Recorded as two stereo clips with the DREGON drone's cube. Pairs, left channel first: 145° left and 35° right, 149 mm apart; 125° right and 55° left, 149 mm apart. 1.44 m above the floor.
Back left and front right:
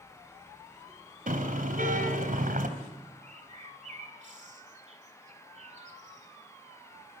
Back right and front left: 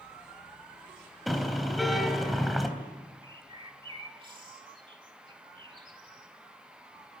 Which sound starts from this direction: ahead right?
A car horn, at 1.3 s.